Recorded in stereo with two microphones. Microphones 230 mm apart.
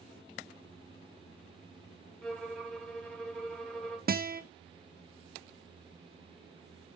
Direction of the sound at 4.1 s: 40° right (ahead or behind).